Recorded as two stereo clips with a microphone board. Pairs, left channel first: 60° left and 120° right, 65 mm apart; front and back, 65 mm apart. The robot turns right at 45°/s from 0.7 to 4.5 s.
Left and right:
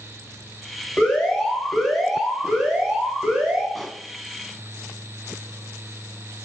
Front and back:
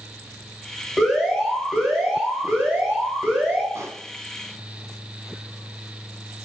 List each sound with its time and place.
1.0 s an alarm: 100° left, 1.8 m; by 3.6 s 140° right, 1.8 m
3.8 s a pop: 145° left, 0.7 m; by 4.0 s 160° left, 0.7 m